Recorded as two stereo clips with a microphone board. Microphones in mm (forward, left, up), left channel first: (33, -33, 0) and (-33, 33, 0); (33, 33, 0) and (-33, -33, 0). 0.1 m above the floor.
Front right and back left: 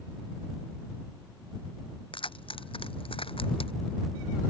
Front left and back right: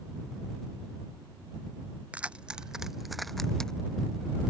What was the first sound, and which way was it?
Keys jangling, 60° right.